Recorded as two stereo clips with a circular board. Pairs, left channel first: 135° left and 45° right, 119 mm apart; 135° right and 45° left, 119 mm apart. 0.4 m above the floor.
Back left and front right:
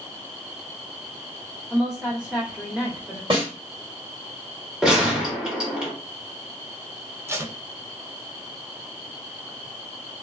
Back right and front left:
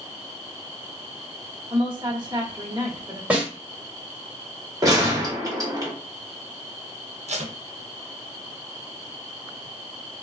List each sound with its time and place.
1.7 s a woman speaking: 35° left, 1.1 m
3.3 s a snare drum: 30° right, 1.8 m
4.8 s a gunshot: 30° left, 1.1 m
7.3 s tape being pulled: 25° left, 0.5 m